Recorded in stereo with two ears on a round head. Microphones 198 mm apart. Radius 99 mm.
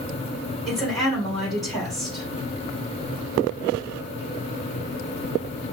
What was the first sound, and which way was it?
A woman speaking, centre (ahead or behind).